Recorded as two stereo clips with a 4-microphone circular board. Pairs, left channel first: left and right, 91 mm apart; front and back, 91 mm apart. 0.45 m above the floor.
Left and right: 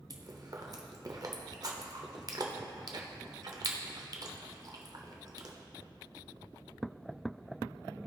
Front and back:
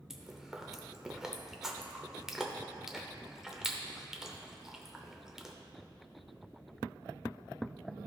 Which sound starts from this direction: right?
Chewing, at 0.1 s.